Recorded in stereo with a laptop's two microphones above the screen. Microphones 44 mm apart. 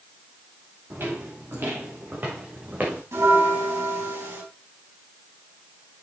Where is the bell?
85° right, 4.5 m.